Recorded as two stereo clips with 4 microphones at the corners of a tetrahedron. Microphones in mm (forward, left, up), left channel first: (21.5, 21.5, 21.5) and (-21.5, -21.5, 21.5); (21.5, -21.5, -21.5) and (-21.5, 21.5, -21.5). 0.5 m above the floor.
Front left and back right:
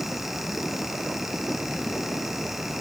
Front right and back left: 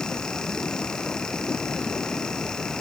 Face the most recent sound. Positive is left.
No sound to turn to.